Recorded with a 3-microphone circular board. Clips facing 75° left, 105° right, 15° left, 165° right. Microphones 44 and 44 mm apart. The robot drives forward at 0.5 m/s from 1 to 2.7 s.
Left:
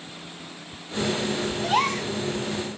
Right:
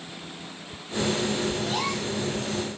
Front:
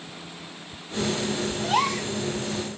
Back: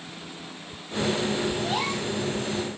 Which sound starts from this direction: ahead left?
A gasp, at 1.6 s.